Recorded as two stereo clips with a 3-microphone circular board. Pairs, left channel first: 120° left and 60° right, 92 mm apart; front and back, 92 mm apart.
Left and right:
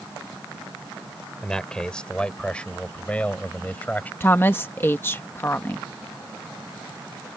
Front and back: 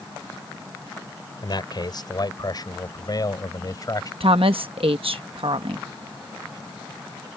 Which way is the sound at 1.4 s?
40° left.